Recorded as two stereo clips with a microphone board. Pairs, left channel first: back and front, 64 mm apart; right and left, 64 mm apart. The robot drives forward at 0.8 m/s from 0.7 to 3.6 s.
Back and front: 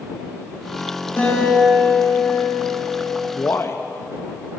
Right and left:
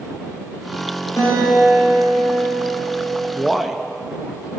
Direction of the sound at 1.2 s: 115° right.